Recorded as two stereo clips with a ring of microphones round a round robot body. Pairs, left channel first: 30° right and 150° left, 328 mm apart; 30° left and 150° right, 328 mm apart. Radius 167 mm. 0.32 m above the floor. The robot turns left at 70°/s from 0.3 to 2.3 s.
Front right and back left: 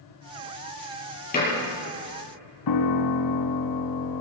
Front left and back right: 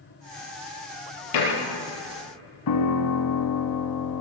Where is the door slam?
35° left, 7 m; by 1.4 s 30° left, 7 m.